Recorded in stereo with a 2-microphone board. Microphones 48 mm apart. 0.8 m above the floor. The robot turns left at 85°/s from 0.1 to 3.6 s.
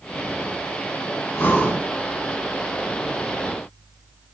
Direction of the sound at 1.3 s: 50° left.